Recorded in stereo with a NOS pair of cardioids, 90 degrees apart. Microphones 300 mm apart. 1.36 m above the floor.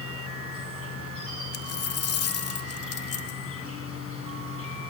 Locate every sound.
0.0 s an insect: 45° left, 8 m
1.5 s a dropped coin: 55° left, 2 m